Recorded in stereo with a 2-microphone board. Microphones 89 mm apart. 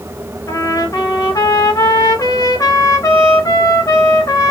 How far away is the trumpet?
About 0.9 m.